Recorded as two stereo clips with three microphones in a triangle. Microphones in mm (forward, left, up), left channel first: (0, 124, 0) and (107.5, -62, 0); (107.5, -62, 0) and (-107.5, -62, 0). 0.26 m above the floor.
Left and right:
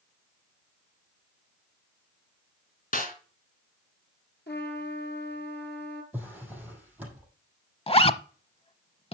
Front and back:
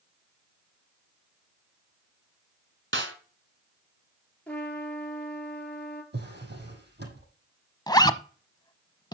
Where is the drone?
No drone in this recording.